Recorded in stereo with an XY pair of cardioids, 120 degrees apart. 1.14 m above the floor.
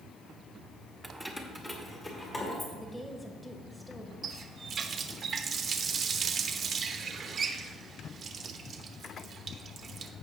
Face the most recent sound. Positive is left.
turn(degrees=-40)